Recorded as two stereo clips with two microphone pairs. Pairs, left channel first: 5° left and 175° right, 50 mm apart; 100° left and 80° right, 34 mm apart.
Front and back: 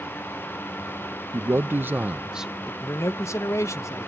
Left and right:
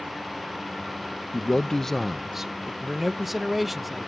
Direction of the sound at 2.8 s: Straight ahead.